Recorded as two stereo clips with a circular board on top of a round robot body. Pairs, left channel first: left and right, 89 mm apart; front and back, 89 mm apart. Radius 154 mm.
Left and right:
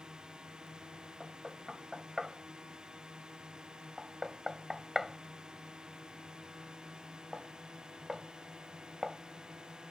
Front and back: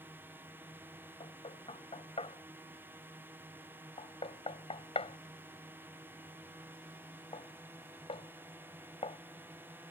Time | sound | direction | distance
0.0 | a drone | 160° right | ?
1.2 | knocking | 5° right | ?